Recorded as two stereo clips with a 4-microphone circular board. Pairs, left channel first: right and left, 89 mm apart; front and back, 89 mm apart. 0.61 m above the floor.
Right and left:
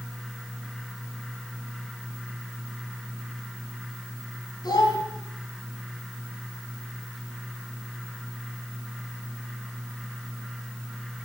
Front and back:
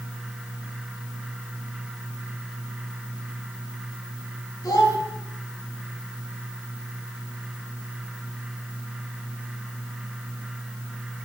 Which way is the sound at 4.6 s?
50° right.